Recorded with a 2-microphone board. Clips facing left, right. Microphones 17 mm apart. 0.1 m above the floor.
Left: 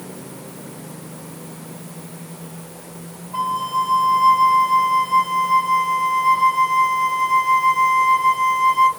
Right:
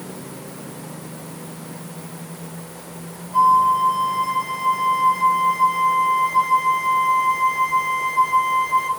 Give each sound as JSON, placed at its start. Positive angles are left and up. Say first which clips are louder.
{"t": 3.3, "sound": "a flute", "louder": "right 7 dB", "side_deg": 45, "distance_m": 1.0}